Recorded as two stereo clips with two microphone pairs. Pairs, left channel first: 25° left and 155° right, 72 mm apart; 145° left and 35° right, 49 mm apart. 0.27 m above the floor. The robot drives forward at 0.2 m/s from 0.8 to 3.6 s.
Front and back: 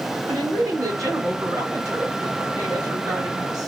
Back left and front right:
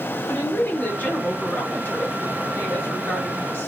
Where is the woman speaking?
170° right, 2 m.